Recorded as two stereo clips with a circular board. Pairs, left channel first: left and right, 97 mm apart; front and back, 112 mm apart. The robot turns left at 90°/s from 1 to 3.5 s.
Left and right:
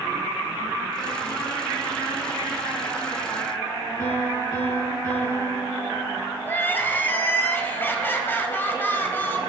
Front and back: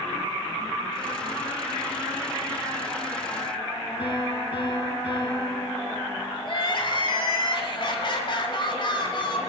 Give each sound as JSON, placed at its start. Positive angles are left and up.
{"t": 4.0, "sound": "a piano", "azimuth_deg": 35, "distance_m": 6.5}
{"t": 6.5, "sound": "crying", "azimuth_deg": 25, "distance_m": 1.5}